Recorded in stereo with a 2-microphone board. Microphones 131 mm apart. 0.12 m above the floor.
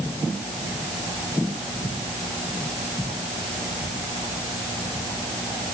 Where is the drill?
I don't hear a drill.